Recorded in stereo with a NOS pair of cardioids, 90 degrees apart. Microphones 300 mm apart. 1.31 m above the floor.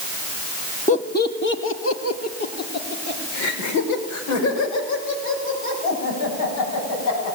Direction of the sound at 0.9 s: 25° left.